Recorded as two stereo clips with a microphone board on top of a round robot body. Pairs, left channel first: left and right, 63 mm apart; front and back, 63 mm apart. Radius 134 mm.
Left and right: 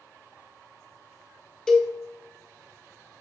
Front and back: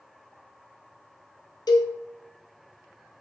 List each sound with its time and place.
1.7 s a cowbell: 10° left, 1.9 m